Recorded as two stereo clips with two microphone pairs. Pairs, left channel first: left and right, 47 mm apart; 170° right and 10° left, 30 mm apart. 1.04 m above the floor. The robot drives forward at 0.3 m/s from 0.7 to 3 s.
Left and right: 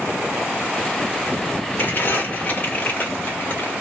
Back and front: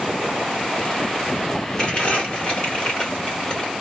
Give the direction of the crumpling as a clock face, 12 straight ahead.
8 o'clock.